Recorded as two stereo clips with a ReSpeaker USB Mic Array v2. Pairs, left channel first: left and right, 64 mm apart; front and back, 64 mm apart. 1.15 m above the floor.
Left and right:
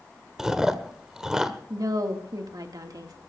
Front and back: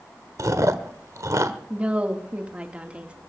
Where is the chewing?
170° right, 1.3 m.